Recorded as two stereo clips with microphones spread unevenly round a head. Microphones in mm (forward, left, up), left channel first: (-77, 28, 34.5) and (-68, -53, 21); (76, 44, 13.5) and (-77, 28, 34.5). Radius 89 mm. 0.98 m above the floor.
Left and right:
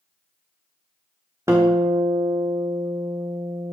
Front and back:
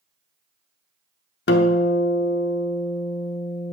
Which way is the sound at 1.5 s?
5° right.